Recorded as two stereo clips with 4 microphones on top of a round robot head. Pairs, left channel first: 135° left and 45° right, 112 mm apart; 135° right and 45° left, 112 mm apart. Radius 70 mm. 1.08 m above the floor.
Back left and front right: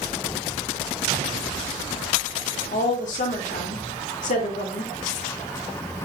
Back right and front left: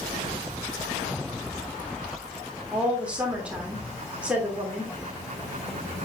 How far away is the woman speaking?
About 3 m.